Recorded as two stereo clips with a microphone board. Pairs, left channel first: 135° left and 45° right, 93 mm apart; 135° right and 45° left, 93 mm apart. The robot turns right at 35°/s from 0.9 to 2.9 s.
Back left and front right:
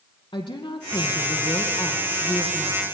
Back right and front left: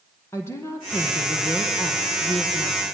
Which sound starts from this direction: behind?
A woman speaking, at 0.3 s.